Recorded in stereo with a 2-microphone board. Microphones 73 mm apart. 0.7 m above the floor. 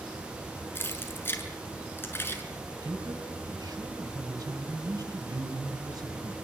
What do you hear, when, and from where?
0.8 s keys jangling: 30° left (ahead or behind), 6 m
2.8 s a man speaking: 60° right (ahead or behind), 5 m